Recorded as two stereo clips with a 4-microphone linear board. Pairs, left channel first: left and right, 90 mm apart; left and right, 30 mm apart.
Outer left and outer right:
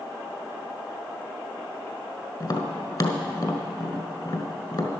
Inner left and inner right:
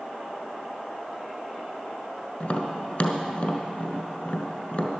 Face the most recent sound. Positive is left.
turn(degrees=50)  # may be behind; listen again after turning